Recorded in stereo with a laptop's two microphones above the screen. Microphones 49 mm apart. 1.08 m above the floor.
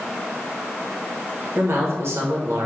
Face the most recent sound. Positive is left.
turn(degrees=-55)  # may be behind; listen again after turning